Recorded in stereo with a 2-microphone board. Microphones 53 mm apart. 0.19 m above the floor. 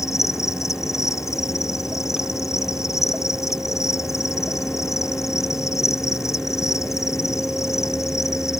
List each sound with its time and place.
0.0 s an insect: 70° left (ahead or behind)